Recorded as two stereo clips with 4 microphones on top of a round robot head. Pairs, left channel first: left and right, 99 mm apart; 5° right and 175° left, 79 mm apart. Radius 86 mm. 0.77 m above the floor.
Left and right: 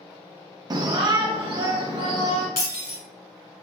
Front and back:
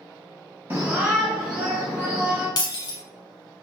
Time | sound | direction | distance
0.7 | a shout | 130° right | 0.6 m
2.6 | breaking glass | 25° left | 1.0 m